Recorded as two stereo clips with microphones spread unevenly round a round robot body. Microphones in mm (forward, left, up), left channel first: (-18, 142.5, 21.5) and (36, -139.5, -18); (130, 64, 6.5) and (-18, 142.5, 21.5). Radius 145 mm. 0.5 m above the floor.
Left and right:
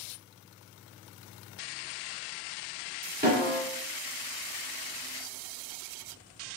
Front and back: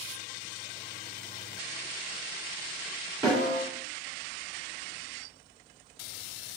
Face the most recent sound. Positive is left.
turn(degrees=-135)